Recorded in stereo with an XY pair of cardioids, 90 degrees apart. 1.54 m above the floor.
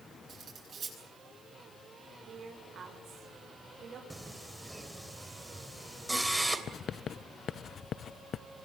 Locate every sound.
0.3 s cutlery clinking: 55° right, 10 m
2.3 s a woman speaking: 60° right, 7 m
4.1 s singing: 10° right, 3 m
6.7 s writing: 60° left, 0.9 m